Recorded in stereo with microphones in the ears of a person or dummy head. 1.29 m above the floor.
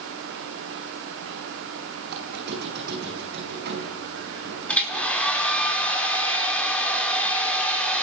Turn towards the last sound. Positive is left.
turn(degrees=0)  # may be behind; listen again after turning